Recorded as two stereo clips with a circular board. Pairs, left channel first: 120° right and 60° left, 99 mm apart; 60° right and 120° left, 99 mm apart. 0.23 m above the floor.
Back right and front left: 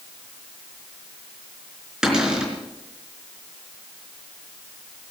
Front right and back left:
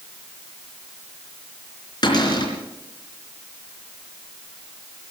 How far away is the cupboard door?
About 4 m.